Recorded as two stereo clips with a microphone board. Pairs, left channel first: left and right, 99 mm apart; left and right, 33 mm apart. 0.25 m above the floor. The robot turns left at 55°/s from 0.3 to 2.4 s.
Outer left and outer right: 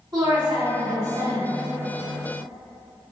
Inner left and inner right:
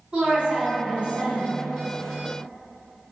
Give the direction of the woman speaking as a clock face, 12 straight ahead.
3 o'clock.